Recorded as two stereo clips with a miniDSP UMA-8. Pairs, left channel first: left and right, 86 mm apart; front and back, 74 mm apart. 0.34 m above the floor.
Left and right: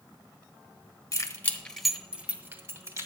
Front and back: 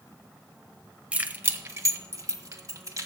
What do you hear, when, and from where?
1.1 s keys jangling: 115° left, 1.2 m; by 3.1 s 140° right, 2 m